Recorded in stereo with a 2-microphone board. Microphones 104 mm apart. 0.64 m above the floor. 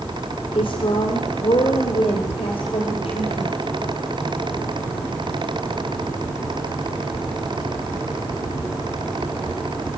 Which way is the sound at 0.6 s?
60° left (ahead or behind).